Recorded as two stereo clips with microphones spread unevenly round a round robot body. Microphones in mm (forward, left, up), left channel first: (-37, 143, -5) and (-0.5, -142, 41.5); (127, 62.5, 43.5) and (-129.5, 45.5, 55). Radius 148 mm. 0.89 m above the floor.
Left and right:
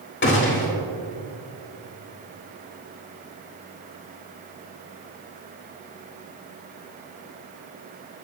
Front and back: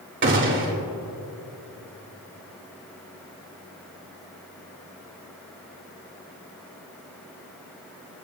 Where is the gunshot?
140° left, 2.5 m.